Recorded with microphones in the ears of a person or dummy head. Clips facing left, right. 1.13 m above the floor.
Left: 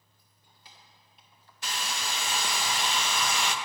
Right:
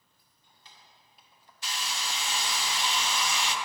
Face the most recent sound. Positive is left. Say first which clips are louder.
# left 2 dB
turn(degrees=45)  # may be behind; listen again after turning